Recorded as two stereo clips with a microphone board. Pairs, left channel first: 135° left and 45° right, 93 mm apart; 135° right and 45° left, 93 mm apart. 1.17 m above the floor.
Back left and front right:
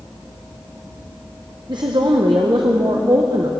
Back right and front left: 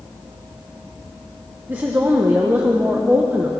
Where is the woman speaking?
20° right, 0.8 m.